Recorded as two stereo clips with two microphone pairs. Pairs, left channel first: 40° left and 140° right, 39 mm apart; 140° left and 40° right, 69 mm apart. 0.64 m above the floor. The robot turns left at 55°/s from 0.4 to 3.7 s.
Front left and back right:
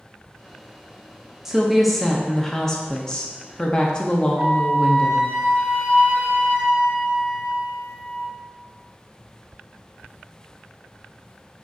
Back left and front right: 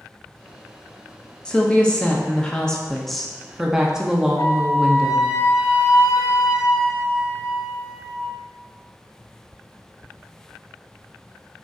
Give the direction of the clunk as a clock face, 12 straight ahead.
I don't hear a clunk.